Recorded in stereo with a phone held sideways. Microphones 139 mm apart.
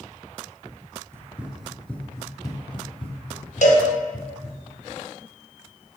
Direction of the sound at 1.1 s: 20° right (ahead or behind).